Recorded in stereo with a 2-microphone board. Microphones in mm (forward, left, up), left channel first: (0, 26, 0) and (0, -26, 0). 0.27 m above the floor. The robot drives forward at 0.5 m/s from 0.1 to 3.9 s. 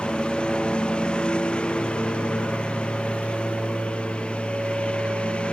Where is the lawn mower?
15° left (ahead or behind); by 5.5 s 20° left (ahead or behind).